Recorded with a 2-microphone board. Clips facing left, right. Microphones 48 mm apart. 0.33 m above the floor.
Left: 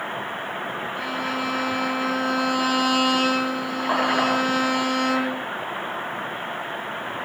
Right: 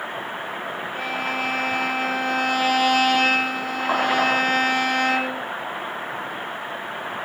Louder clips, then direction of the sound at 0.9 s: Right 2 dB; 60° right (ahead or behind).